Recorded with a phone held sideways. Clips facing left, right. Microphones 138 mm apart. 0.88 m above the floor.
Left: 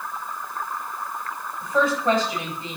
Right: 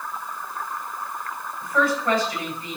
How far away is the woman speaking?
About 4.5 m.